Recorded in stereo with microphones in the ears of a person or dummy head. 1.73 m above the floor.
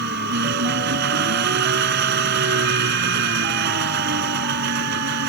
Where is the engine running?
55° right (ahead or behind).